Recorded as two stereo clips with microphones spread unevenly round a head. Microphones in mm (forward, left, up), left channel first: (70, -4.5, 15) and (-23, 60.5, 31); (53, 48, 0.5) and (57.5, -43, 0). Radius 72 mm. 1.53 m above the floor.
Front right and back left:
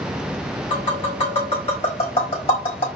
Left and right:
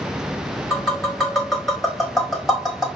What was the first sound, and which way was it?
Tapping, 5° left.